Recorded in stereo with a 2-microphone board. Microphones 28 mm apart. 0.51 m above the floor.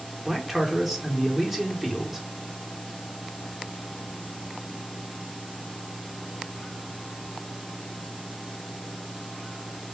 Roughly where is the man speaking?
Centre.